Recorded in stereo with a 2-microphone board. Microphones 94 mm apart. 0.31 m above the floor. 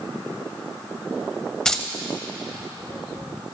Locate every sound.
1.6 s keys jangling: 5° left (ahead or behind), 0.8 m